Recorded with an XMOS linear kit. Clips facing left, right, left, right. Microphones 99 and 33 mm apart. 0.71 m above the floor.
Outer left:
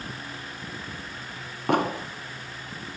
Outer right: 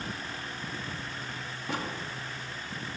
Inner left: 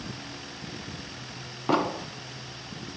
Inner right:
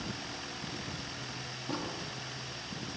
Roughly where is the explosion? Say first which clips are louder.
Outer left 12 dB, inner left 13 dB; left.